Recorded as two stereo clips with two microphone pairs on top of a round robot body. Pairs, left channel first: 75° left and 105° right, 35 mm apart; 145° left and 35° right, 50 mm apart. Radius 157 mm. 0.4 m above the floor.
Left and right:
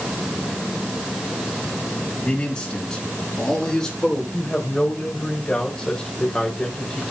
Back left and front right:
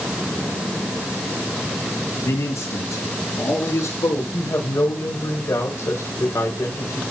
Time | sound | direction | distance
2.2 | a man speaking | 135° left | 4 m
4.3 | a woman speaking | 135° left | 3 m